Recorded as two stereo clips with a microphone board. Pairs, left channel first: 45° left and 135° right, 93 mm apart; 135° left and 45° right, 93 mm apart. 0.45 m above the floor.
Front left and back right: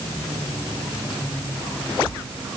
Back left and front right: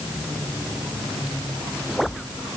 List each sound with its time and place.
Only background noise.